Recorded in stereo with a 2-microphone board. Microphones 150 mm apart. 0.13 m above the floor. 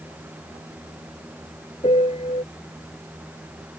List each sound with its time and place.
1.8 s a piano: 45° left (ahead or behind)